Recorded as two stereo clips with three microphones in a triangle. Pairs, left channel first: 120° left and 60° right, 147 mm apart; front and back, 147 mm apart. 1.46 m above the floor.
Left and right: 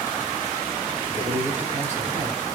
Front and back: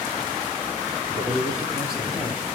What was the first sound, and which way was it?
A man speaking, 100° right.